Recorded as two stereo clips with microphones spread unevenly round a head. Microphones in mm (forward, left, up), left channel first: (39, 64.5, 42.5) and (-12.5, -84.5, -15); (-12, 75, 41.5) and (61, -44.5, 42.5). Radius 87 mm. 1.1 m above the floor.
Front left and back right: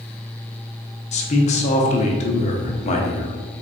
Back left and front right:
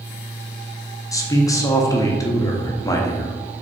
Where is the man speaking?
105° left, 0.7 m.